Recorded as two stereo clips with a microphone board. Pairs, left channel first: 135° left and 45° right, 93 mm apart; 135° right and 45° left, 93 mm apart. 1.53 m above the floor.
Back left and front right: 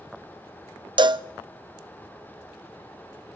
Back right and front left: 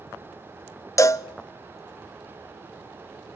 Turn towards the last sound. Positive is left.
turn(degrees=-80)